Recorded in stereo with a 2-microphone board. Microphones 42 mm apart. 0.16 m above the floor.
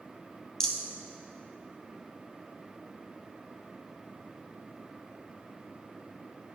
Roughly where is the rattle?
Centre.